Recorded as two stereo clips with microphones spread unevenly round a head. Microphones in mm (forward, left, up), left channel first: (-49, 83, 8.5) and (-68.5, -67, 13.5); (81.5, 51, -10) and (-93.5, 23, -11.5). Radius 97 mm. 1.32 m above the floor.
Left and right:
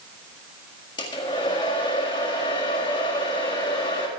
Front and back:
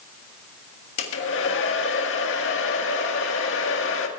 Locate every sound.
1.0 s a hair dryer: 15° left, 1.7 m